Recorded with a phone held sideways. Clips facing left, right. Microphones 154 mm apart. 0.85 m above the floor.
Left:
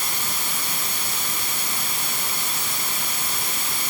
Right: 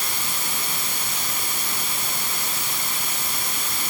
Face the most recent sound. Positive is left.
No sound to turn to.